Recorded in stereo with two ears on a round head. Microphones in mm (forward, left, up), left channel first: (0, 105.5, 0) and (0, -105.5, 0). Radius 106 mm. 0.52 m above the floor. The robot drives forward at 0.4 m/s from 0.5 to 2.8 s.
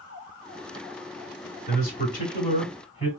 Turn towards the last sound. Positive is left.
turn(degrees=30)  # may be behind; listen again after turning